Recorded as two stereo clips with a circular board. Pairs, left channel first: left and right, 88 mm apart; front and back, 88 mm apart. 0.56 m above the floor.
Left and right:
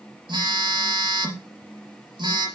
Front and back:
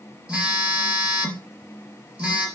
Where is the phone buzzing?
100° right, 3.5 m.